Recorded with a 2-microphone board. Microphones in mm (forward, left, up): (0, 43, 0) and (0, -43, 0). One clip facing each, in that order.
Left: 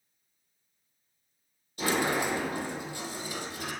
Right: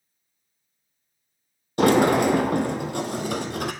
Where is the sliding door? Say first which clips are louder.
Right 11 dB; 65° right (ahead or behind), 1.1 m.